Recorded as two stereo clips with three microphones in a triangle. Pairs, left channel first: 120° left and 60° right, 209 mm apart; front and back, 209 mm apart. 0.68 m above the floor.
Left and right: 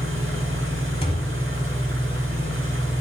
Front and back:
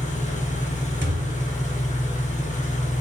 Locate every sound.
0.0 s an engine running: 55° right, 1.1 m
1.0 s a thud: 175° left, 0.8 m